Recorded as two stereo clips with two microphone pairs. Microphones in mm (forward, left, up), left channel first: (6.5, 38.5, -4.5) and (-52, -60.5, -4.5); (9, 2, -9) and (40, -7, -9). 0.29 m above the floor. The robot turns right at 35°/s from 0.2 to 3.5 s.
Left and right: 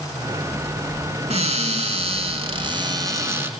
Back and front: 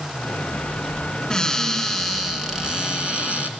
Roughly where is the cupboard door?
Behind right.